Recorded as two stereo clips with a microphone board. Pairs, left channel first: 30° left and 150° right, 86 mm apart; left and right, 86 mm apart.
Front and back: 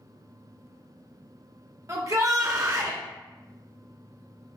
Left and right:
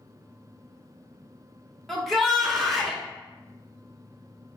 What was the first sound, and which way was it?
A shout, straight behind.